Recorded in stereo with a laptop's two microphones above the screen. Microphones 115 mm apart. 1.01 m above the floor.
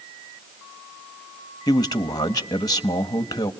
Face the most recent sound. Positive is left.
turn(degrees=35)  # may be behind; listen again after turning